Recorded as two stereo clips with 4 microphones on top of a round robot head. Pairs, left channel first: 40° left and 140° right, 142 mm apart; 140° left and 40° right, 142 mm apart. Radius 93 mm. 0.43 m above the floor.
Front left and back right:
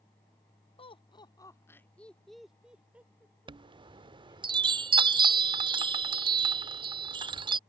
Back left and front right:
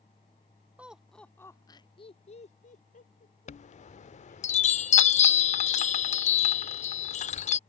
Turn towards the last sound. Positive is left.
turn(degrees=165)